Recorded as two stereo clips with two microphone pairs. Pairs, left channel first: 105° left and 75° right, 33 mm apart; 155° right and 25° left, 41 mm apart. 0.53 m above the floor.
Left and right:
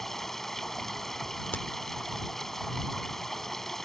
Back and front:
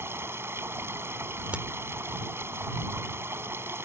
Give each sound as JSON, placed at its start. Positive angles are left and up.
{"t": 0.0, "sound": "running water", "azimuth_deg": 25}
{"t": 1.5, "sound": "a crack", "azimuth_deg": 75}